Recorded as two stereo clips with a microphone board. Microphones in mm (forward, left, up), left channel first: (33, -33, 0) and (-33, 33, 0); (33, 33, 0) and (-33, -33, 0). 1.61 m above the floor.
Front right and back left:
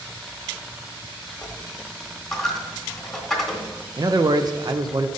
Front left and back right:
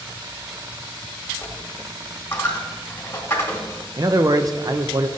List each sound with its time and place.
1.4 s a dropped coin: 35° left, 1.5 m
4.0 s a man speaking: straight behind, 0.5 m